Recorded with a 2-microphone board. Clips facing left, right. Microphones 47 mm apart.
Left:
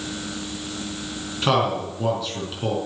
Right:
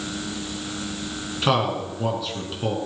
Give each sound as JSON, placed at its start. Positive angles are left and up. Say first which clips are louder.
{"t": 1.4, "sound": "a man speaking", "louder": "left 1 dB", "side_deg": 0, "distance_m": 4.5}